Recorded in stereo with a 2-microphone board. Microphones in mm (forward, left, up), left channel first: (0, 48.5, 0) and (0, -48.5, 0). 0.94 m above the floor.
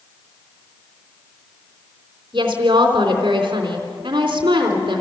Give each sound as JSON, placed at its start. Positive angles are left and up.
{"t": 2.3, "sound": "a woman speaking", "side_deg": -55, "distance_m": 3.0}